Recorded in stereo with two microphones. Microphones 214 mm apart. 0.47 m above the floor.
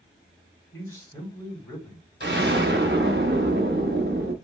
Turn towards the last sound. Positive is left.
turn(degrees=-55)  # may be behind; listen again after turning